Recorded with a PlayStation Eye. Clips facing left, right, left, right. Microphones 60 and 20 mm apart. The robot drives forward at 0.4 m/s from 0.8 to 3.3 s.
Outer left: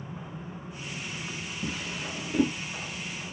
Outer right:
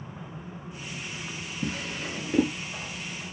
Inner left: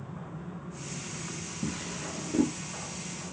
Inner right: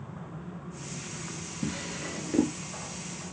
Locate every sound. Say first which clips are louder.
1.6 s a drawer: outer right 3 dB, inner right 2 dB; 55° right (ahead or behind), 1.4 m; by 2.5 s 45° right (ahead or behind), 1.5 m